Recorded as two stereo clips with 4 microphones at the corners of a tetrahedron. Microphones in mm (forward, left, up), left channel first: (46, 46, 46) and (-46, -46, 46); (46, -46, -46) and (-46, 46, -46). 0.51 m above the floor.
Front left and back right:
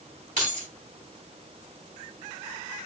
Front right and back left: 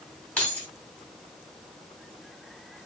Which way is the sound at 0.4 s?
125° right.